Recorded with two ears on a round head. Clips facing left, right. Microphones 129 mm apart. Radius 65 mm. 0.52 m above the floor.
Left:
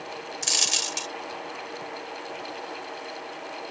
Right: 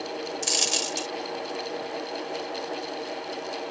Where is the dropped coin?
Centre (ahead or behind).